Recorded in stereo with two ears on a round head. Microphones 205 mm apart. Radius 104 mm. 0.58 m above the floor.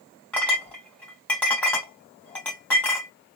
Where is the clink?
5° left (ahead or behind), 1.5 m.